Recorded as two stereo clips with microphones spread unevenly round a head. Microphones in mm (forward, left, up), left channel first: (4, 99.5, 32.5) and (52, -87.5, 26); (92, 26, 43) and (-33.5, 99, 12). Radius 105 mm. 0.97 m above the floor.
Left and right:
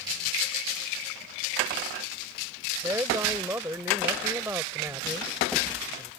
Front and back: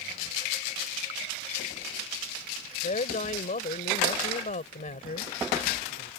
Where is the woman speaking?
5° left.